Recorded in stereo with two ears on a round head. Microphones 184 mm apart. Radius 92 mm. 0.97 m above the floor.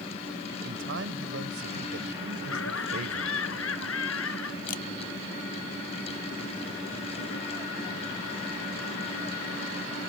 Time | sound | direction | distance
0.6 | a man speaking | 65° right (ahead or behind) | ?
2.4 | laughter | 75° left (ahead or behind) | ?
4.7 | a camera shutter | 40° left (ahead or behind) | ?